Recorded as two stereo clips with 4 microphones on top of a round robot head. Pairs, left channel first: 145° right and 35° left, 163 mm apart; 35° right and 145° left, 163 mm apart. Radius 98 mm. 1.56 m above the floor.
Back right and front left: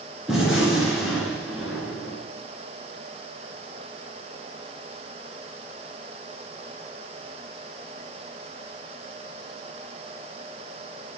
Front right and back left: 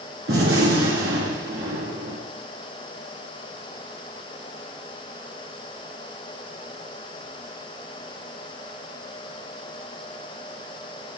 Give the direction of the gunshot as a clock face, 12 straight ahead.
8 o'clock.